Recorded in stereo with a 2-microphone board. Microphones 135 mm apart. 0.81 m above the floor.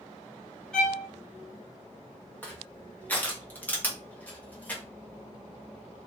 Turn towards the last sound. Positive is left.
turn(degrees=15)  # may be behind; listen again after turning